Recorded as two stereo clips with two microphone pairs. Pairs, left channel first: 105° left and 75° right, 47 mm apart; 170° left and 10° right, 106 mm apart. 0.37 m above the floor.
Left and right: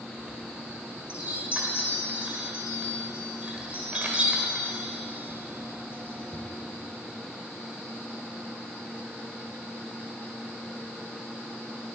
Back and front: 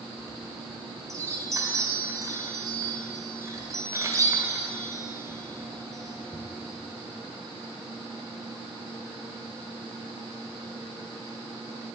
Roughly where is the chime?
Ahead right.